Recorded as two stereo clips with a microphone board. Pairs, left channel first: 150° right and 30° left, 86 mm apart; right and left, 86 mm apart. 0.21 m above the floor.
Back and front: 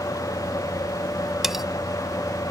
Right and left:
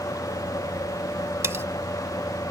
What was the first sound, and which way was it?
Cutlery clinking, 110° left.